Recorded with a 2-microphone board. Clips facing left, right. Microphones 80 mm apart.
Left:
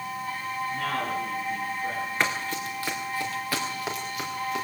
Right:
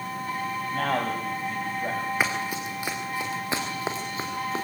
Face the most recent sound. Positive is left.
turn(degrees=-30)  # may be behind; listen again after turning